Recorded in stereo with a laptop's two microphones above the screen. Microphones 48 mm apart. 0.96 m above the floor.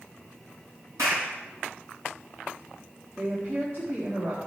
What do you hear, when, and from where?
1.0 s a clap: 75° right (ahead or behind), 5.5 m
3.2 s a woman speaking: 55° right (ahead or behind), 1.6 m